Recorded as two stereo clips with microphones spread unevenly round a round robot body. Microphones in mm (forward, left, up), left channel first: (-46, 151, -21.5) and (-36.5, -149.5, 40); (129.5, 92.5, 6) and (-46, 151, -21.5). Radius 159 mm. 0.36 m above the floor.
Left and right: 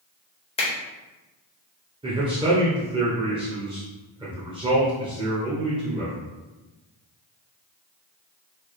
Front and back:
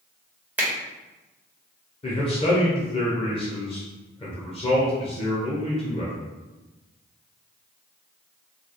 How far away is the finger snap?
About 1.3 m.